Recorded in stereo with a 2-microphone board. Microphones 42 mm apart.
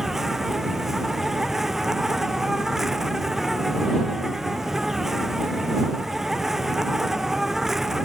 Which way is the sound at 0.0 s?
5° right (ahead or behind).